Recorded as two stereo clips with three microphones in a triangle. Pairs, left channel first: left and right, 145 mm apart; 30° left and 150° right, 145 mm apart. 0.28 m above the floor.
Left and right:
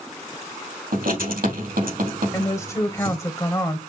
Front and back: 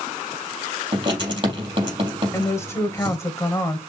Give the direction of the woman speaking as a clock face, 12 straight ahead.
10 o'clock.